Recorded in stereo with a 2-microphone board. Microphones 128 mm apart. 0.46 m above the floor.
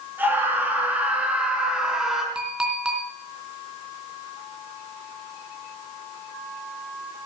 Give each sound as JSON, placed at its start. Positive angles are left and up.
{"t": 0.2, "sound": "a scream", "side_deg": -15, "distance_m": 6.0}
{"t": 2.4, "sound": "a clink", "side_deg": -5, "distance_m": 3.0}